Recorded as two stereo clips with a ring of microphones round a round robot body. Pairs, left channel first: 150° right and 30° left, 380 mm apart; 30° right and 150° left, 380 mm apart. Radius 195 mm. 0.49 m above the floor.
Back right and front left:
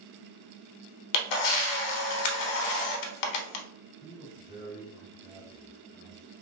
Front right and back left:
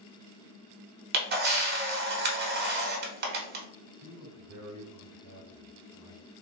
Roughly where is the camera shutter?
Behind right.